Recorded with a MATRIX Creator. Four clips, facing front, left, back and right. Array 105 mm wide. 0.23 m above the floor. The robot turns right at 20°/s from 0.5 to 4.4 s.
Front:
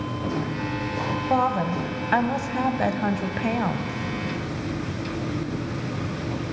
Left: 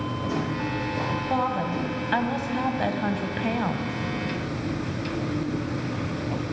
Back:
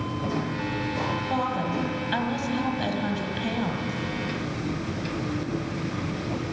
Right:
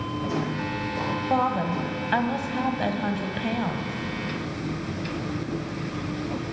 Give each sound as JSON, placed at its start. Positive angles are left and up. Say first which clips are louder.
{"t": 1.3, "sound": "a woman speaking", "louder": "right 3 dB, front 7 dB", "azimuth_deg": -25, "distance_m": 1.0}